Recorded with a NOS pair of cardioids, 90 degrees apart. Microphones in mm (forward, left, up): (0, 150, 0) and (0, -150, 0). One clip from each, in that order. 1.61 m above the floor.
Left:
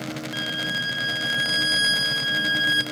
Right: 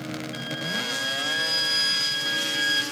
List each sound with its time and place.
0.3 s a violin: 35° left, 5 m